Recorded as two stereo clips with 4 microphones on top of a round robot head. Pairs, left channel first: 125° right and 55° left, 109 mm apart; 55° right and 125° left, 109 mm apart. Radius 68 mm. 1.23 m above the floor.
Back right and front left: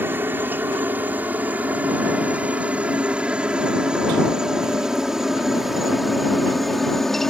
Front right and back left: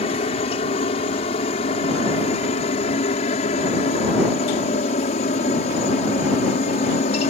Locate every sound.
0.0 s a helicopter: 20° right; by 7.3 s 40° right